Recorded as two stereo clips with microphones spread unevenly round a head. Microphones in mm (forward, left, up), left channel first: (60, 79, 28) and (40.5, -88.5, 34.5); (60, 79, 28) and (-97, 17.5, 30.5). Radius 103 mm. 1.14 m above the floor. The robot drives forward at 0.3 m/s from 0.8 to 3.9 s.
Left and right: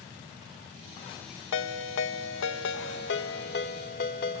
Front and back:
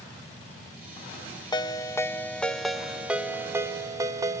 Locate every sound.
1.5 s a ringtone: 90° left, 0.8 m; by 4.4 s 130° left, 1.1 m